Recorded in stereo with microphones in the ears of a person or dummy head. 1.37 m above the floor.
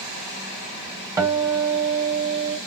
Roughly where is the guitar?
Right.